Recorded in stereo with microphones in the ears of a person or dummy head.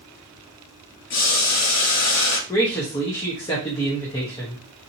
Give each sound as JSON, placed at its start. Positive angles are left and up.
{"t": 1.1, "sound": "boiling", "side_deg": 70, "distance_m": 2.5}
{"t": 2.5, "sound": "a man speaking", "side_deg": 25, "distance_m": 0.9}